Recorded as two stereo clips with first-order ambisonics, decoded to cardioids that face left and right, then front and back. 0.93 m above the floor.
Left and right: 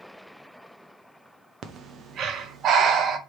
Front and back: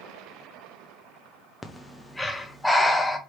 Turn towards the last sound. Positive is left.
turn(degrees=-85)